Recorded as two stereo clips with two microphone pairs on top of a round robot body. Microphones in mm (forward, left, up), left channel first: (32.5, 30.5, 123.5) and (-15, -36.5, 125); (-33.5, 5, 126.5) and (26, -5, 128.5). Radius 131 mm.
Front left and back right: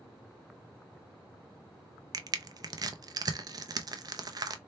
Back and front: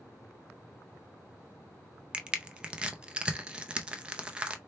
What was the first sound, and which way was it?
Crushing, 85° right.